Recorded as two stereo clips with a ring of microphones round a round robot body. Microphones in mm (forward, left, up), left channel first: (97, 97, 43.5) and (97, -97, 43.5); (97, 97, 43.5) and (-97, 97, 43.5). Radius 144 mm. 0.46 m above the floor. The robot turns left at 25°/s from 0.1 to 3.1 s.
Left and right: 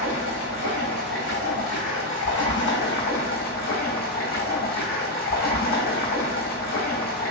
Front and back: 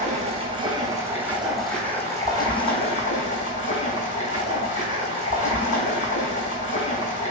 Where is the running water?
125° left, 1.9 m; by 7.3 s 50° left, 1.9 m.